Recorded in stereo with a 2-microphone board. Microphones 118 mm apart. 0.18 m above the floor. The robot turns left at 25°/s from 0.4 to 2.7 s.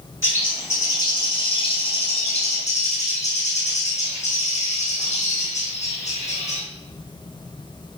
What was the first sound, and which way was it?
A bird, 160° left.